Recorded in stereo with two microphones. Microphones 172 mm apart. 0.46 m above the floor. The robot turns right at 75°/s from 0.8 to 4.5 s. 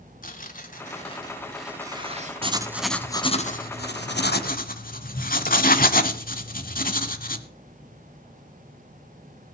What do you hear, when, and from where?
0.2 s tearing paper: 120° left, 2.5 m; by 2.5 s 115° right, 2.5 m
2.4 s writing: 35° right (ahead or behind), 1.3 m; by 7.5 s 55° left (ahead or behind), 1.3 m